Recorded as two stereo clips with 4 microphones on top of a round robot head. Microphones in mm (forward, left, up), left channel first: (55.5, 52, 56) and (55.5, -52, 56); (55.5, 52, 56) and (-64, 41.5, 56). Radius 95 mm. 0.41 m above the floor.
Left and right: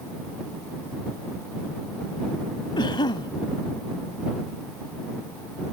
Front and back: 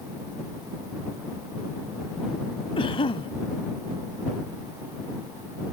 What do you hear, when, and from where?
2.8 s a cough: 50° left